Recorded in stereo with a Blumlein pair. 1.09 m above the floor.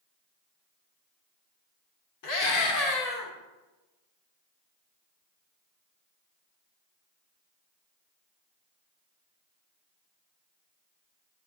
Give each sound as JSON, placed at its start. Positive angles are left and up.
{"t": 2.2, "sound": "a scream", "azimuth_deg": 50, "distance_m": 3.0}